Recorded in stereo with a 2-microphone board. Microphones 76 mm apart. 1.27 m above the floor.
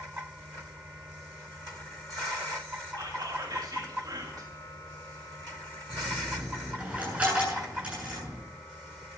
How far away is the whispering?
About 2.5 m.